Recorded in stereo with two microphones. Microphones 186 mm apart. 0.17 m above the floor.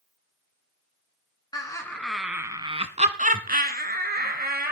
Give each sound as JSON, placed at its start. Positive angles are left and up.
{"t": 1.5, "sound": "laughter", "side_deg": 25, "distance_m": 1.5}